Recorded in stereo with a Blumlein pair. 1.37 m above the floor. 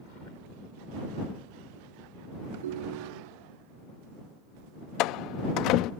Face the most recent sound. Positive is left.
turn(degrees=40)